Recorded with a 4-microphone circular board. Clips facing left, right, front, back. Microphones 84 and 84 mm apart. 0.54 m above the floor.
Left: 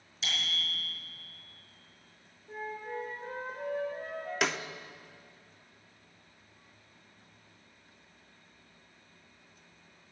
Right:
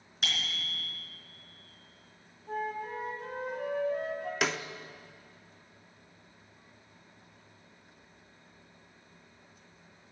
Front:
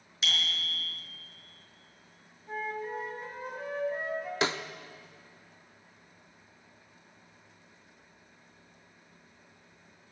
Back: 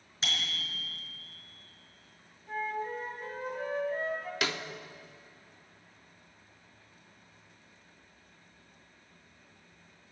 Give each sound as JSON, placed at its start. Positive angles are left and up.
{"t": 0.2, "sound": "a bicycle bell", "azimuth_deg": -125, "distance_m": 5.0}
{"t": 2.5, "sound": "a flute", "azimuth_deg": -80, "distance_m": 3.0}
{"t": 4.4, "sound": "a snare drum", "azimuth_deg": 0, "distance_m": 0.7}